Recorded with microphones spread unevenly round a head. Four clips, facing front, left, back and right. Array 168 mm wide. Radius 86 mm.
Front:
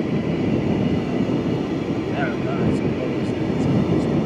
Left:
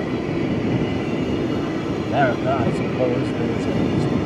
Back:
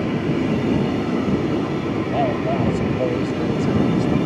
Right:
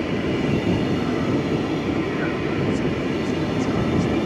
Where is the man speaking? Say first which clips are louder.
Left 5 dB, back 3 dB; 120° left; by 4.2 s 125° left.